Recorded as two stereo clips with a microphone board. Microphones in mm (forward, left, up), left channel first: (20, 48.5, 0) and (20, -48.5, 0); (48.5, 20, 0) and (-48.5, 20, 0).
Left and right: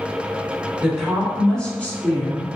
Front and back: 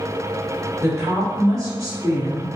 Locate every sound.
0.8 s a woman speaking: 165° right, 1.2 m; by 2.6 s 135° left, 1.5 m